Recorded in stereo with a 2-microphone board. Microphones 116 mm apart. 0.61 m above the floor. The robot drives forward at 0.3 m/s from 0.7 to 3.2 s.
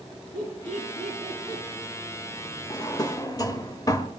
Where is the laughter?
85° left, 6 m.